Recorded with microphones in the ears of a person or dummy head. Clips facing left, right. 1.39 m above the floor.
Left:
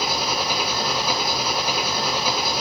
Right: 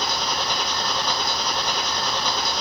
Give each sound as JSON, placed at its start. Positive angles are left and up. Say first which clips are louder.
{"t": 0.0, "sound": "an engine running", "louder": "left 2 dB", "side_deg": 10, "distance_m": 1.1}